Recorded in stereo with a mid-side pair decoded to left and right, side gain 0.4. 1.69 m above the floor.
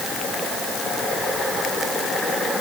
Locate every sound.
Only background noise.